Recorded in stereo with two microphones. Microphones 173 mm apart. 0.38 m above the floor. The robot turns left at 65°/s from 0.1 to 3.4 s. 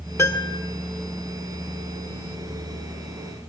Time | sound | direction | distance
0.2 | a piano | 15° left (ahead or behind) | 1.3 m